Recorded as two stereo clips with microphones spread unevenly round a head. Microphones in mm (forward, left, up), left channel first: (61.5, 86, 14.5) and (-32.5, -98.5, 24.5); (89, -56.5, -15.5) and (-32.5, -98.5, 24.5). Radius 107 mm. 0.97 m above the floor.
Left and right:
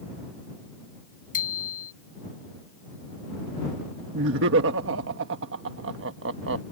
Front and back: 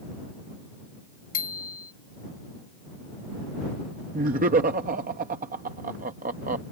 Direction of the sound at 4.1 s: 145° right.